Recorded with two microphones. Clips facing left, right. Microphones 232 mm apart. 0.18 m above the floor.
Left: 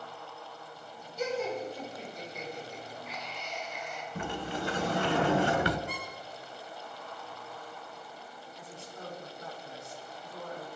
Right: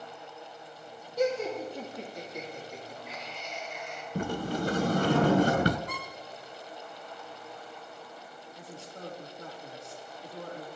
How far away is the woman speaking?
About 7 m.